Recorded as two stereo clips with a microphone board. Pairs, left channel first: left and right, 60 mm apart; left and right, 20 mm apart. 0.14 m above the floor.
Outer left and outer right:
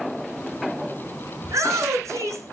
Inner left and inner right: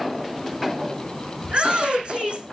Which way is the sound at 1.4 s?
70° right (ahead or behind).